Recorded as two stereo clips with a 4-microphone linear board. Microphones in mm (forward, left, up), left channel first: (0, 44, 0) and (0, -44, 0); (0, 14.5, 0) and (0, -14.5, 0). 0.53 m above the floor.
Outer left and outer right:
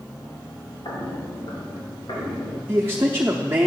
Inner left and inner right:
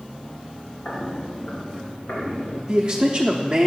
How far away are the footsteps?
About 2.5 m.